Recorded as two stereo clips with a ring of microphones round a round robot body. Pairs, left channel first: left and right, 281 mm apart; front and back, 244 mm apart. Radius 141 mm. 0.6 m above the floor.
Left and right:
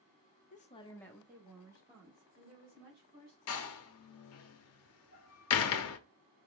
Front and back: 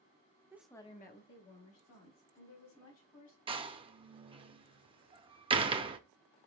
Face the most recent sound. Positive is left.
turn(degrees=115)